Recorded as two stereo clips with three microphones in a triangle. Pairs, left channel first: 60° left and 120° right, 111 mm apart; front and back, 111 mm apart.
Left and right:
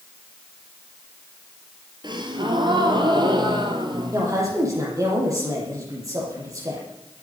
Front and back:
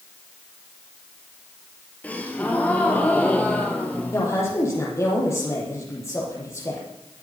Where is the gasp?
75° right, 2 m.